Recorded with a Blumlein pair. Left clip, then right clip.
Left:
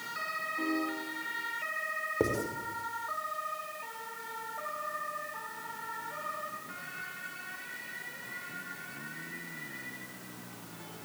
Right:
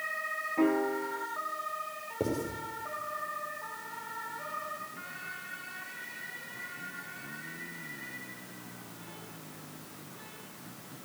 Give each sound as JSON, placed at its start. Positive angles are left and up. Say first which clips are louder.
{"t": 0.6, "sound": "a piano", "louder": "right 8 dB", "azimuth_deg": -60, "distance_m": 1.4}
{"t": 2.2, "sound": "writing", "louder": "left 1 dB", "azimuth_deg": 15, "distance_m": 5.5}